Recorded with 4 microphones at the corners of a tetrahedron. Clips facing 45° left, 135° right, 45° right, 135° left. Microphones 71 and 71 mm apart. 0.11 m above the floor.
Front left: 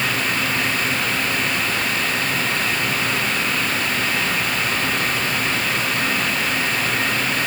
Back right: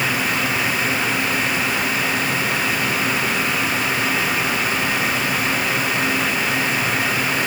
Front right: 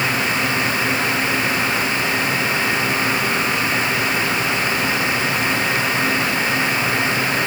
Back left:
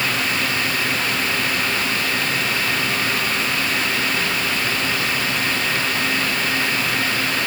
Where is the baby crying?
No baby crying in this recording.